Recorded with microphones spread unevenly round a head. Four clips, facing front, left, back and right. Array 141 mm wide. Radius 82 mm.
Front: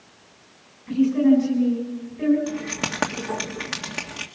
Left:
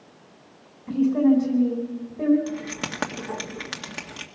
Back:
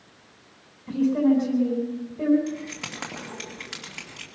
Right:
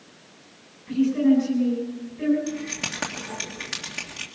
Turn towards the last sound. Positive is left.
turn(degrees=20)